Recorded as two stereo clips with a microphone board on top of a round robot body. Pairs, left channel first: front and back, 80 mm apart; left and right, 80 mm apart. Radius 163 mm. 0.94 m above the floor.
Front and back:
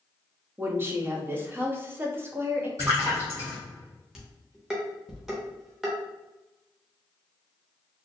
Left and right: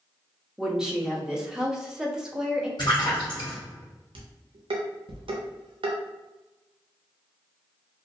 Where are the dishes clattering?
95° right, 0.5 m.